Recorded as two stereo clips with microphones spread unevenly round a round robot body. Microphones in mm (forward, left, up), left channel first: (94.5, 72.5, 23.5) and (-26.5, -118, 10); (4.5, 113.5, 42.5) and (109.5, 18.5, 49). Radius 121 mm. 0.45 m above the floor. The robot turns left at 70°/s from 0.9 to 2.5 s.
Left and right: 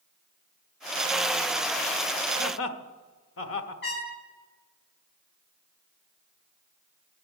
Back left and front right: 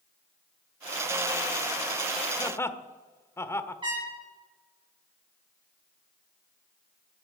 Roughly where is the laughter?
Left.